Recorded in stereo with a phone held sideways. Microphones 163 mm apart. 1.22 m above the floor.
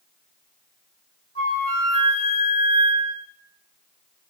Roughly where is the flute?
Left.